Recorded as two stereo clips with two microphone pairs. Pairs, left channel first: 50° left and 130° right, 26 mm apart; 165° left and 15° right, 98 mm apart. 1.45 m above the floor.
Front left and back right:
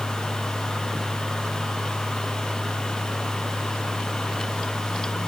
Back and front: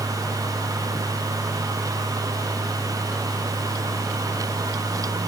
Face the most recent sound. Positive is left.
No sound to turn to.